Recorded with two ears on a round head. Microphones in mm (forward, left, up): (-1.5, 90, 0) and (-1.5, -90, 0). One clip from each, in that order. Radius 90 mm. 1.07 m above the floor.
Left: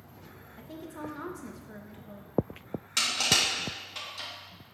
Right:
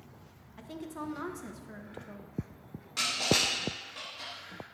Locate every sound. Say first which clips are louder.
0.6 s a woman speaking: right 1 dB; 15° right (ahead or behind), 1.0 m
3.0 s crushing: left 3 dB; 65° left (ahead or behind), 3.5 m